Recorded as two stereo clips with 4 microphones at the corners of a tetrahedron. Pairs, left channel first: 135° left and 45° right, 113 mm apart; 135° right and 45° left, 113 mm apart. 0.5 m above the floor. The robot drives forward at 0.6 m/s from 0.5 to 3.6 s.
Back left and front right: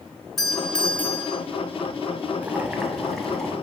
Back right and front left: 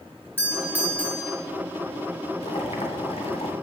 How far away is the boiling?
About 1.0 m.